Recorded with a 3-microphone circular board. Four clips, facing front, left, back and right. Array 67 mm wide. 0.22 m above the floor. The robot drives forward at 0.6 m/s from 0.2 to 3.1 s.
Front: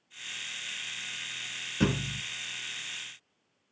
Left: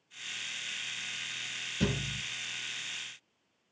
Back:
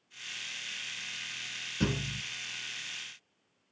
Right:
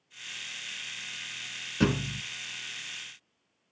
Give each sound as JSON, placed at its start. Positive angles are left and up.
{"t": 1.8, "sound": "a thud", "azimuth_deg": -65, "distance_m": 0.6}